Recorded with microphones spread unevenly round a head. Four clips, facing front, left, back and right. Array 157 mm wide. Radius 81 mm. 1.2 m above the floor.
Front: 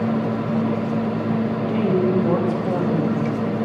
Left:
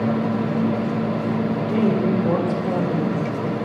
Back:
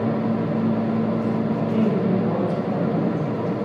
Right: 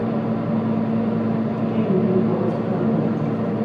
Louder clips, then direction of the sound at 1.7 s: Even, front 3 dB; 25° left.